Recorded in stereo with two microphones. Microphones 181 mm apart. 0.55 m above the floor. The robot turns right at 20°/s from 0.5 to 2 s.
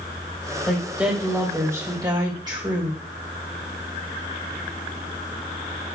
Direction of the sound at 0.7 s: Centre (ahead or behind).